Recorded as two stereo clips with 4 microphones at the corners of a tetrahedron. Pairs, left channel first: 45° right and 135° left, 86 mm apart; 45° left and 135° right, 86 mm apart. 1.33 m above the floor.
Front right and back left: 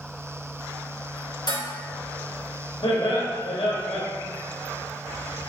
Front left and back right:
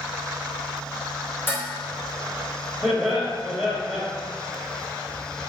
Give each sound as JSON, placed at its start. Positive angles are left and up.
{"t": 1.5, "sound": "dishes clattering", "azimuth_deg": -15, "distance_m": 3.0}
{"t": 2.8, "sound": "laughter", "azimuth_deg": -30, "distance_m": 2.0}